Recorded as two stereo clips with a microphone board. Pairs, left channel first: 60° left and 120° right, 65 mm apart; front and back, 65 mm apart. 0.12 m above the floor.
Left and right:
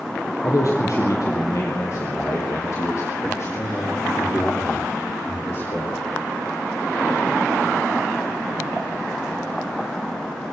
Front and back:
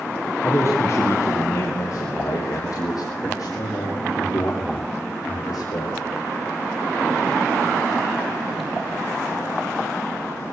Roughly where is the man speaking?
Ahead left.